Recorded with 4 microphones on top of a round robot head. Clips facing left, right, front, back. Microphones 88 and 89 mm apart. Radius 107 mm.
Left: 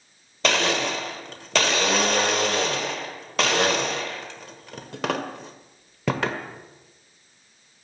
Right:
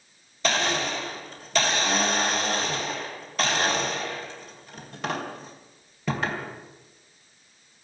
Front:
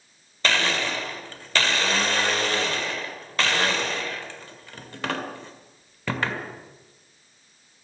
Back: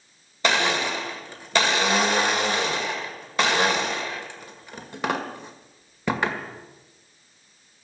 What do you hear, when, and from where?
0.4 s a blender: 105° left, 1.7 m